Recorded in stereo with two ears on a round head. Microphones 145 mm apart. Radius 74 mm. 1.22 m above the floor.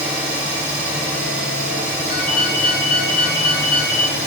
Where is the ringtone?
60° left (ahead or behind), 1.2 m.